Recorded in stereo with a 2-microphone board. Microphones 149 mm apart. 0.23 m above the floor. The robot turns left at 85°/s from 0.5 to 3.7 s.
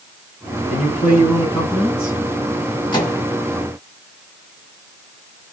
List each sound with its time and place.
0.7 s a man speaking: 95° left, 1.6 m; by 2.2 s 30° right, 1.6 m
2.9 s a microwave: 30° left (ahead or behind), 1.0 m; by 3.2 s 15° left (ahead or behind), 1.0 m